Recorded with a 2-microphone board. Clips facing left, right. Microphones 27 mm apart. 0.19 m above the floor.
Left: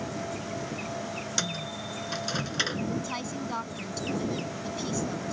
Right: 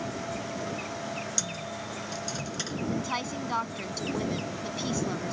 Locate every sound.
1.4 s a microwave: 35° left (ahead or behind)
2.9 s a woman speaking: 20° right (ahead or behind)